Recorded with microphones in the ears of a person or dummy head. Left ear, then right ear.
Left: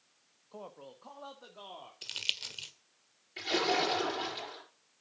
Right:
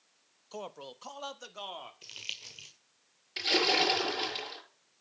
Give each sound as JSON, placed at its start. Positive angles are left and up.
{"t": 0.5, "sound": "a man speaking", "side_deg": -85, "distance_m": 1.1}
{"t": 2.0, "sound": "crumpling", "side_deg": 25, "distance_m": 1.6}
{"t": 3.4, "sound": "a splash", "side_deg": -45, "distance_m": 6.5}